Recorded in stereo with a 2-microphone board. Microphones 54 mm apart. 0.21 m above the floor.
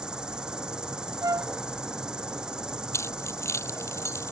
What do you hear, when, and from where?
0.0 s an insect: 15° right (ahead or behind)
1.2 s a flute: 75° right (ahead or behind)
2.9 s keys jangling: 55° left (ahead or behind)